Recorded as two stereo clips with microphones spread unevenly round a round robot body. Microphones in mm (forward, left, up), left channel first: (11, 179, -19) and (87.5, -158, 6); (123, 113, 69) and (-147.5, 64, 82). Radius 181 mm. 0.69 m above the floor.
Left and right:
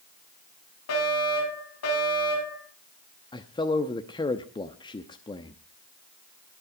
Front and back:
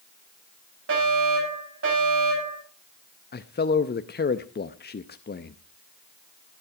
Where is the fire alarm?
155° left, 9.5 m.